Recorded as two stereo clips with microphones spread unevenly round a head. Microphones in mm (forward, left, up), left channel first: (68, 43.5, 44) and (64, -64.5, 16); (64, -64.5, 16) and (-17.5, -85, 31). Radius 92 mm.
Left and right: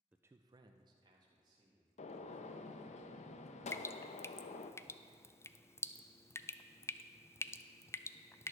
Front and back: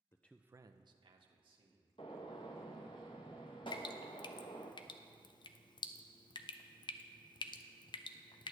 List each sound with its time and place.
0.1 s a man speaking: 30° right, 0.5 m; by 3.0 s 150° right, 3 m
2.0 s a gunshot: 80° left, 0.5 m
3.7 s dripping: 15° left, 0.5 m